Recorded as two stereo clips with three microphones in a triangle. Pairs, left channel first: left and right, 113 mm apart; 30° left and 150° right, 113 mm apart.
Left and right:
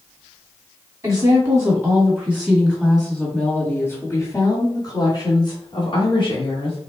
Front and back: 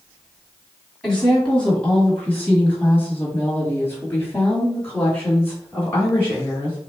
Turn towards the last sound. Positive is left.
turn(degrees=100)